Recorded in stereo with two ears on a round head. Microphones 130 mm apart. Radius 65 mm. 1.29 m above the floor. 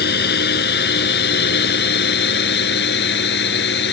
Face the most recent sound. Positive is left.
turn(degrees=85)